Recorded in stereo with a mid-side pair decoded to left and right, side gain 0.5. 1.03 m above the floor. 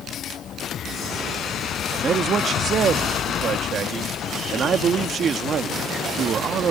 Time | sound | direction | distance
2.0 | a man speaking | 55° right | ?